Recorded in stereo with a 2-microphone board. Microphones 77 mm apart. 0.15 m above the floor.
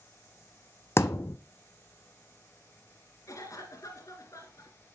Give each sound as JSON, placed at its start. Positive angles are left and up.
{"t": 1.0, "sound": "a thud", "side_deg": 35, "distance_m": 0.5}
{"t": 3.3, "sound": "a cough", "side_deg": 45, "distance_m": 2.0}